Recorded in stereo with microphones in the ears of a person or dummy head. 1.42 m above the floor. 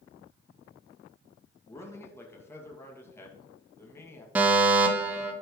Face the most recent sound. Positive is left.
turn(degrees=-15)  # may be behind; listen again after turning